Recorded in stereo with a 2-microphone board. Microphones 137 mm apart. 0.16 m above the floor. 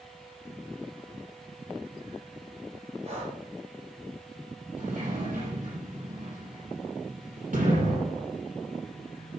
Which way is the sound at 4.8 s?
70° right (ahead or behind).